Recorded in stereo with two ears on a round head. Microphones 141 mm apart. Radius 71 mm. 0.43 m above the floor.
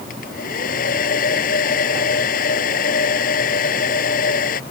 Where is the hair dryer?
55° left (ahead or behind).